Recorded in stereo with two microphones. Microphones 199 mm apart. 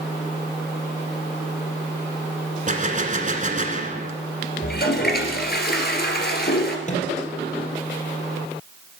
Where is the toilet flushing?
55° left (ahead or behind), 1.9 m.